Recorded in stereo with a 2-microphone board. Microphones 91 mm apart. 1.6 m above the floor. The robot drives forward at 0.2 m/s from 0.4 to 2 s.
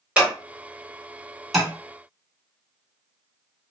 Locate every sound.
0.2 s scissors: 15° right (ahead or behind), 1.7 m
1.5 s tapping: centre (ahead or behind), 1.9 m